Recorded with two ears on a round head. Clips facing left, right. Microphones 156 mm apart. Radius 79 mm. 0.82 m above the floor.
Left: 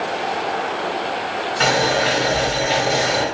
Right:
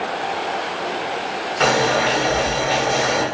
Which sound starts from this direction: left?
Boiling, at 1.6 s.